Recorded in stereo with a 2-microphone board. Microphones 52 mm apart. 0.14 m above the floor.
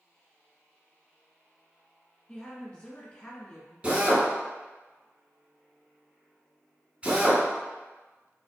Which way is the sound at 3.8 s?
25° right (ahead or behind).